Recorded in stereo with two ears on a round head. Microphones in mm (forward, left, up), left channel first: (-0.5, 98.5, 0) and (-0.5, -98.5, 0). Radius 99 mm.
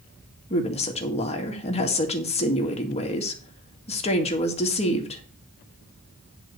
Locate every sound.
0.5 s a woman speaking: 30° left (ahead or behind), 1.8 m